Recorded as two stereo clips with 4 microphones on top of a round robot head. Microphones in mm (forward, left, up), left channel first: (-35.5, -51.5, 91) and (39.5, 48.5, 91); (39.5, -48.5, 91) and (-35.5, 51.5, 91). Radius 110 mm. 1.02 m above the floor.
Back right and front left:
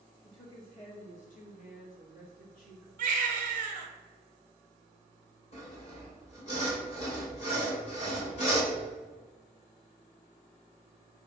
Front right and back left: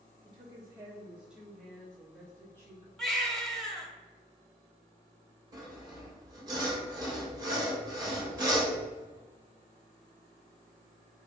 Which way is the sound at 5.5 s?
170° right.